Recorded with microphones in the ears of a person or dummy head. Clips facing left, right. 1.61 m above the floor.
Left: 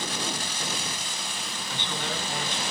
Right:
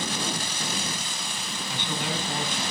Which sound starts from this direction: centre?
A man speaking, at 1.7 s.